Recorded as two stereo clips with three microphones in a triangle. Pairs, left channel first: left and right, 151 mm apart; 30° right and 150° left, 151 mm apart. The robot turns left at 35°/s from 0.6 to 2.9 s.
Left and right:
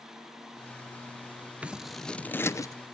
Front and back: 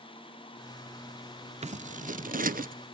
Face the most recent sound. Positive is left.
turn(degrees=145)